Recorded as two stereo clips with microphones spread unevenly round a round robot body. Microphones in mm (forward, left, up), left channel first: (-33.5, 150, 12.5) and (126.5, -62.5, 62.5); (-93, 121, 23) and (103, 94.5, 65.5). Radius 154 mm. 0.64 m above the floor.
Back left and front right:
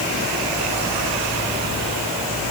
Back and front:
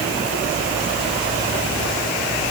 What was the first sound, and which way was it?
Only background noise.